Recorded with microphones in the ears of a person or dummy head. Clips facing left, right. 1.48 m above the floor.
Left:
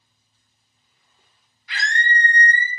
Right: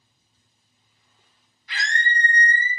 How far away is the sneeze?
I don't hear a sneeze.